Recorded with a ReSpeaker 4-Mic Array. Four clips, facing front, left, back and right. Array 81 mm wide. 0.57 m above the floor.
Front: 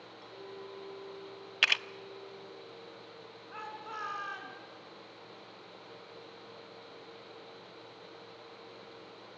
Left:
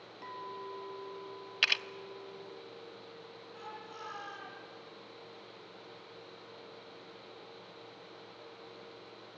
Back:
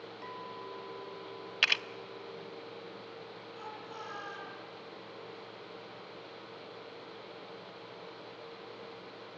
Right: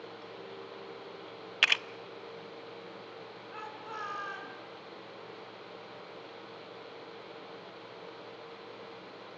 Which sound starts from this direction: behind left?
A clink, at 0.2 s.